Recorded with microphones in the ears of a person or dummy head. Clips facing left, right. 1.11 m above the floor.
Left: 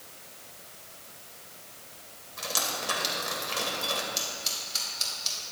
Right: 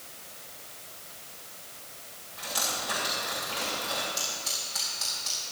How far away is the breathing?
No breathing in this recording.